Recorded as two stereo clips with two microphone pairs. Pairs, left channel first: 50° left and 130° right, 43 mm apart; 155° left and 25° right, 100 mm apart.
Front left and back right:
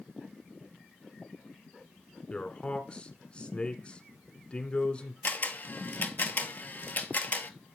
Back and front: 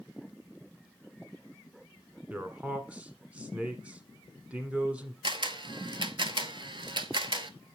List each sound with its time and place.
2.3 s a man speaking: 35° left, 1.2 m
5.2 s a camera shutter: 10° left, 0.7 m